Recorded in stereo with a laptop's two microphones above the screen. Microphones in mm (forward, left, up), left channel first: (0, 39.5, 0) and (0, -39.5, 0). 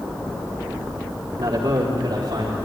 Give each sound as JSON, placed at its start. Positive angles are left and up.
{"t": 1.4, "sound": "a man speaking", "side_deg": -70, "distance_m": 2.5}